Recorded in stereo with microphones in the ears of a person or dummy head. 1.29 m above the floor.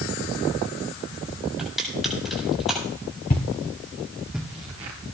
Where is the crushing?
Centre (ahead or behind), 8.5 m.